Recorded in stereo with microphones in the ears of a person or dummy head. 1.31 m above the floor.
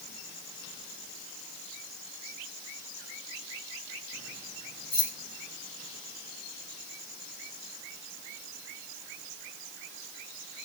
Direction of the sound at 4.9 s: Centre (ahead or behind).